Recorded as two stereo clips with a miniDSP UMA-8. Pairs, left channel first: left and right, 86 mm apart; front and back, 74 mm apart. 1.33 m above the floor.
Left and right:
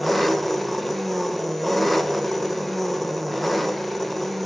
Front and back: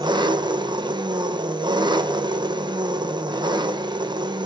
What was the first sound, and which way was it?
An engine running, straight behind.